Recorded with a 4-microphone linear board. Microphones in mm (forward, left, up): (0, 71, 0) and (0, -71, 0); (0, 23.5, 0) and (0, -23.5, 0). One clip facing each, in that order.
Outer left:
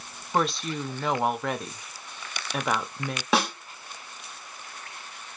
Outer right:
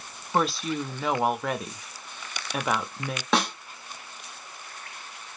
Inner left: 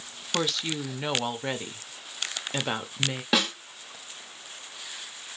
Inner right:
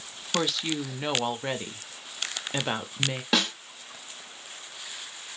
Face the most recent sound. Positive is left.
turn(degrees=5)  # may be behind; listen again after turning